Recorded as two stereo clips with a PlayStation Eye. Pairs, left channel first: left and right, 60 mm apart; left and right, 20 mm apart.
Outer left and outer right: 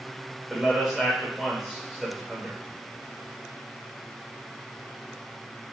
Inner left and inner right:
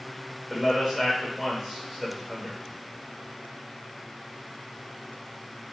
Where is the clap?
No clap in this recording.